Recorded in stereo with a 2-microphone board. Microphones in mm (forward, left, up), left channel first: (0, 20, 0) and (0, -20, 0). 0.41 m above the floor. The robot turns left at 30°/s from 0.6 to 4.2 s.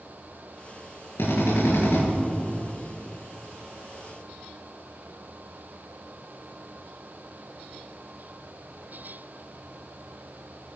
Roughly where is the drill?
Left.